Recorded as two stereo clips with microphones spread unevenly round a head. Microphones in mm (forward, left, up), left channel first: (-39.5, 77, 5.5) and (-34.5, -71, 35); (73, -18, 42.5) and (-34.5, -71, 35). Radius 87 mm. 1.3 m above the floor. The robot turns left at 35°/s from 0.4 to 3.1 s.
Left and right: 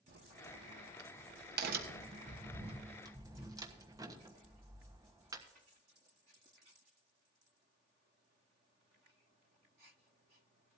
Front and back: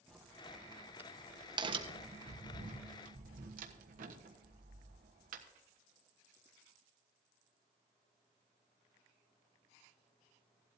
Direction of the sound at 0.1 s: 60° right.